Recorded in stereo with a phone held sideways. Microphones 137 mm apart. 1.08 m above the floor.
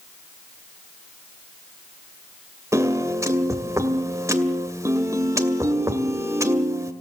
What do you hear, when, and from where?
2.7 s a piano: 20° right (ahead or behind), 2 m